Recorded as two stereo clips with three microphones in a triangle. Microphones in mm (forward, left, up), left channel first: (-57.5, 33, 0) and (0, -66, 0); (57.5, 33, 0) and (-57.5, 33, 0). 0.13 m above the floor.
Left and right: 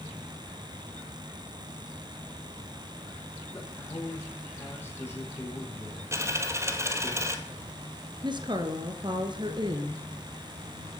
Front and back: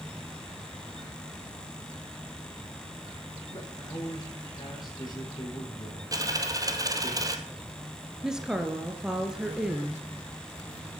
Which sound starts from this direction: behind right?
A dropped coin, at 6.1 s.